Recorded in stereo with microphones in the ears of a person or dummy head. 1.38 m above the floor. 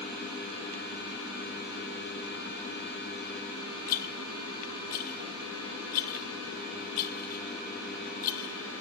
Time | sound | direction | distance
3.9 | a rattle | 45° left (ahead or behind) | 1.4 m